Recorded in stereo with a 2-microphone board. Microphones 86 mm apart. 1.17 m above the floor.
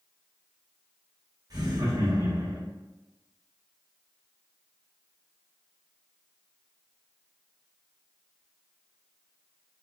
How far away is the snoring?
I don't hear snoring.